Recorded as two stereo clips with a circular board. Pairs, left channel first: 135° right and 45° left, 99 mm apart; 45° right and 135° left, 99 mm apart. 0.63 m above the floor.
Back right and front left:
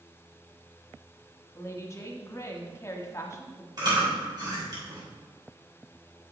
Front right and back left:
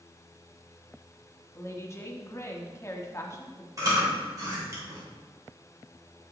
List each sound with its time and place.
1.6 s a woman speaking: 90° right, 1.0 m
3.8 s chewing: 85° left, 3 m